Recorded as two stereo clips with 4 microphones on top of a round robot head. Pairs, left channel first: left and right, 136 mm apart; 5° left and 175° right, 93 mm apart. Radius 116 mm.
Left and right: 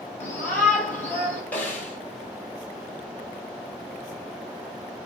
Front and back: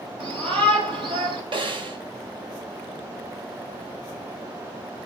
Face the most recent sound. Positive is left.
turn(degrees=165)